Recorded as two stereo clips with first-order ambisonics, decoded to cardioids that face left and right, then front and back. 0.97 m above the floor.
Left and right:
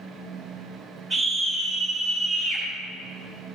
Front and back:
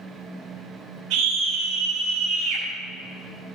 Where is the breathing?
I don't hear breathing.